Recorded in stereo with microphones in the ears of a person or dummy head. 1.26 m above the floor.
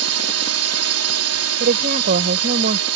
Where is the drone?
75° right (ahead or behind).